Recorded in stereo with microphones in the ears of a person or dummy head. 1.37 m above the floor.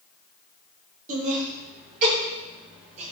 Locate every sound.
1.1 s laughter: 45° right (ahead or behind), 4.5 m; by 3.1 s 40° right (ahead or behind), 6 m